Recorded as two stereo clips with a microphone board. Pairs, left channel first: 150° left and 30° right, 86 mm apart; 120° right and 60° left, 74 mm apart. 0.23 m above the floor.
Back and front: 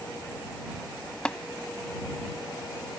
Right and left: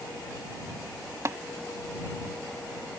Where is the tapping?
75° left.